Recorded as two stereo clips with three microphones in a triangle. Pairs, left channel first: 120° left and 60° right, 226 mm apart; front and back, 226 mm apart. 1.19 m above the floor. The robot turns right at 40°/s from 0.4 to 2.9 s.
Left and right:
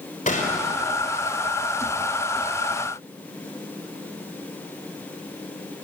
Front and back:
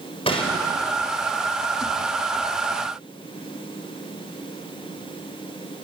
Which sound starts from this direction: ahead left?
A gunshot, at 0.3 s.